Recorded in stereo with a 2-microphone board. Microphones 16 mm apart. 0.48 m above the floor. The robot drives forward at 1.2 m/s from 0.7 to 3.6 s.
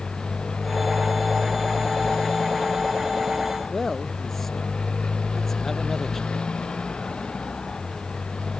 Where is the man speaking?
15° left (ahead or behind).